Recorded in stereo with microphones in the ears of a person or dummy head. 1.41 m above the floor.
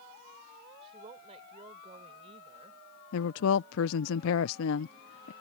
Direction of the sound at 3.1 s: 75° left (ahead or behind).